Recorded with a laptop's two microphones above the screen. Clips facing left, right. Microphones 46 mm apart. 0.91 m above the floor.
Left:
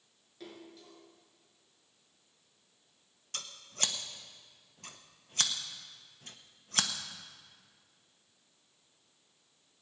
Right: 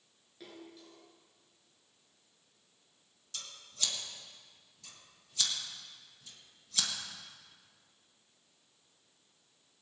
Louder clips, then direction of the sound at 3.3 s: Left 3 dB; 50° left (ahead or behind).